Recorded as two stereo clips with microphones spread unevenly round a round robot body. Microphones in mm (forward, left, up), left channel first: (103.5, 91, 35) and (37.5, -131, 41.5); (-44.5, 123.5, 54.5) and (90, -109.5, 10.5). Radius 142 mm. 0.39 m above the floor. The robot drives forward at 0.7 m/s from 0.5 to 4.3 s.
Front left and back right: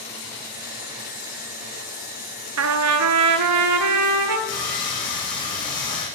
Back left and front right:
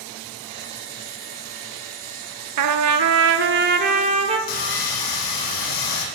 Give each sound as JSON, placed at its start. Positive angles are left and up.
{"t": 2.6, "sound": "a trumpet", "azimuth_deg": -85, "distance_m": 1.2}
{"t": 4.5, "sound": "sawing", "azimuth_deg": 135, "distance_m": 3.0}